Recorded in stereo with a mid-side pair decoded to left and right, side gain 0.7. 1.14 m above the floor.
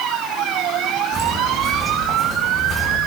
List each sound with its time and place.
1.1 s footsteps: 20° right, 5 m